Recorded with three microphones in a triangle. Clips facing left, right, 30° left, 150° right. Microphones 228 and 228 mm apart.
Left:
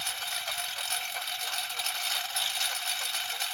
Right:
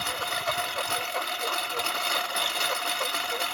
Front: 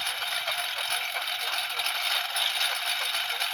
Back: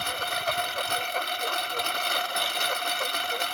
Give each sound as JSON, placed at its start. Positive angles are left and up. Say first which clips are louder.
{"t": 0.0, "sound": "a lawn mower", "louder": "right 11 dB, back 8 dB", "azimuth_deg": -115}